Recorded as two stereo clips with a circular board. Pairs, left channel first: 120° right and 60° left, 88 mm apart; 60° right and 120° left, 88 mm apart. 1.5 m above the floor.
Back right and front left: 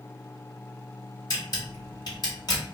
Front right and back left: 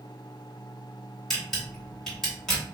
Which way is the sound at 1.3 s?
145° right.